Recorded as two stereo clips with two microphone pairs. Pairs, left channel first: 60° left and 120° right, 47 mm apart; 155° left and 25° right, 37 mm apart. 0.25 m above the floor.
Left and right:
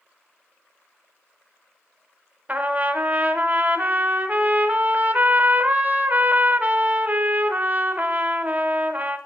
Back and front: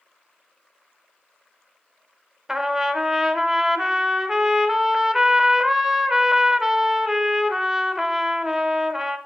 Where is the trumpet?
100° right, 1.0 m.